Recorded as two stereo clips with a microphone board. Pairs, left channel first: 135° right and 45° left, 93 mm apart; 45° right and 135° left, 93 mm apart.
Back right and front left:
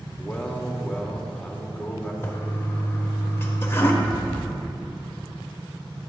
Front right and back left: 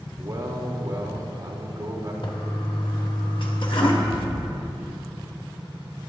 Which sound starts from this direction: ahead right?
An explosion, at 4.0 s.